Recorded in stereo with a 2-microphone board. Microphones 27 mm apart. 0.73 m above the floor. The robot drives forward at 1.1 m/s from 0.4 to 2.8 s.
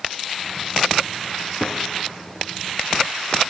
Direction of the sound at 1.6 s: 50° left (ahead or behind).